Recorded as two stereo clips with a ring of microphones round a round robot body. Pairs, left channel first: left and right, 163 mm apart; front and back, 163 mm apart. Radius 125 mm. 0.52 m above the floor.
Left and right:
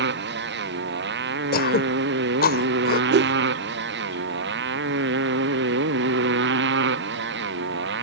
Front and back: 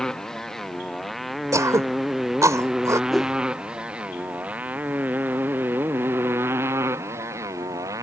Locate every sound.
0.0 s a motorcycle: 90° right; by 8.0 s 105° right
1.5 s throat clearing: 110° left
3.1 s a whoosh: 90° right